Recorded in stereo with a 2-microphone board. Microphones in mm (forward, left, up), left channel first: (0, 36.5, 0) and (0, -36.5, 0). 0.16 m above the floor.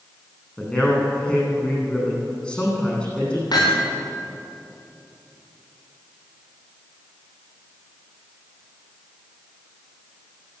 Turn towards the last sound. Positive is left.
turn(degrees=65)  # may be behind; listen again after turning